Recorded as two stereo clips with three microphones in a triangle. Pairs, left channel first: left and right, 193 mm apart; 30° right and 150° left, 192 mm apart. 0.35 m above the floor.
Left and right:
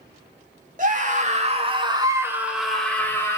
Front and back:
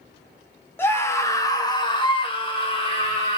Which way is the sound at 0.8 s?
105° right.